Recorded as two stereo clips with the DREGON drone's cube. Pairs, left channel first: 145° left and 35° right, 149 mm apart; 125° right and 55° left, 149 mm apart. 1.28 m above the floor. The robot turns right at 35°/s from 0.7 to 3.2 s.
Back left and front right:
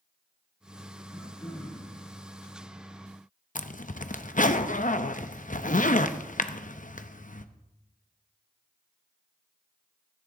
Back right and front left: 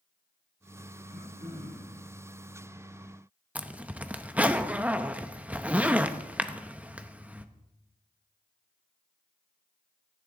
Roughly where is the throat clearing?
Ahead left.